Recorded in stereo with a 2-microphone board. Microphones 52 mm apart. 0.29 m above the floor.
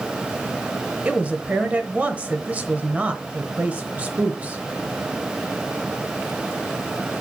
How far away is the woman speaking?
About 0.9 m.